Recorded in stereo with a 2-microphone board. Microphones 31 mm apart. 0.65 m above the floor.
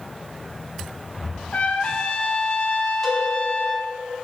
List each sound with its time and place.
1.5 s a trumpet: 45° left (ahead or behind), 1.5 m
3.0 s a cowbell: 10° left (ahead or behind), 4.5 m